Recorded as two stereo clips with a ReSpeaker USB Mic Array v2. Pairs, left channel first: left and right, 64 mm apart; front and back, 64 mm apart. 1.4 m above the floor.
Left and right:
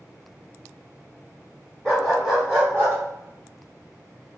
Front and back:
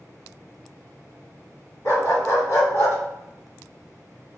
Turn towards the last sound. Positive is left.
turn(degrees=-40)